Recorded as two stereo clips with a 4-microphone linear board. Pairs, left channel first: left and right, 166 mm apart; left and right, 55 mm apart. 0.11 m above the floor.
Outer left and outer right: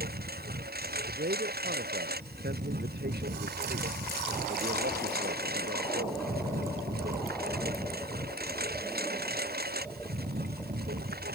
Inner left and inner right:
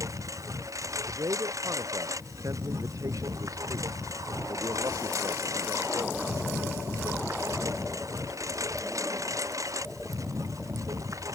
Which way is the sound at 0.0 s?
70° right (ahead or behind).